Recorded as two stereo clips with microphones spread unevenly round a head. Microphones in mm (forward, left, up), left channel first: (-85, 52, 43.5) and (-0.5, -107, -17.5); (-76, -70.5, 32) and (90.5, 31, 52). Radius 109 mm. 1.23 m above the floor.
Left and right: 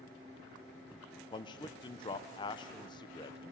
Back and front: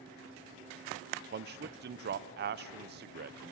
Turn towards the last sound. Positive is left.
turn(degrees=40)